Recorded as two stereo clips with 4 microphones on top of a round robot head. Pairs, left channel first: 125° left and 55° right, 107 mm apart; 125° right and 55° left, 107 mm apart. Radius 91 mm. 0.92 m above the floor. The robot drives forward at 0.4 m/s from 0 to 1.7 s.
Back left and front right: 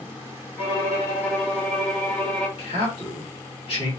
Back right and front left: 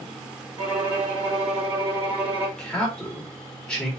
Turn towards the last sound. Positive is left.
turn(degrees=155)